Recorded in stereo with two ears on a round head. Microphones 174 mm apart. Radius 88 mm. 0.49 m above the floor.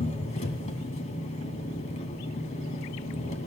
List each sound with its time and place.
0.0 s an engine running: 40° left (ahead or behind), 1.2 m